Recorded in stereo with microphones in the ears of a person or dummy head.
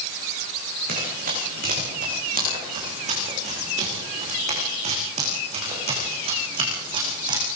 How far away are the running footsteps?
About 8.5 m.